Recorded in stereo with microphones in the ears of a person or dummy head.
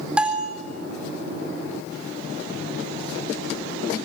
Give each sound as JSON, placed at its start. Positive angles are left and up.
{"t": 0.2, "sound": "a bell", "side_deg": -5, "distance_m": 4.0}